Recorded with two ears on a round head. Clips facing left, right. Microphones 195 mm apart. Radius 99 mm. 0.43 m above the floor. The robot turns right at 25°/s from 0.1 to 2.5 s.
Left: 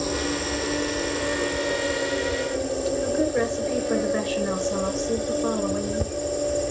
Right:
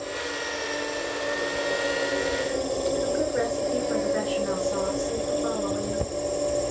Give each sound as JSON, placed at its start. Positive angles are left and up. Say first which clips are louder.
{"t": 0.0, "sound": "an insect", "louder": "left 6 dB", "azimuth_deg": 115, "distance_m": 0.7}
{"t": 3.0, "sound": "a woman speaking", "louder": "left 2 dB", "side_deg": 35, "distance_m": 5.5}